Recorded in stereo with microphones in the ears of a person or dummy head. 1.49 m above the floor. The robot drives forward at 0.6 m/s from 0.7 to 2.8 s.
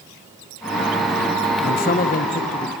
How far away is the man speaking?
About 1.1 m.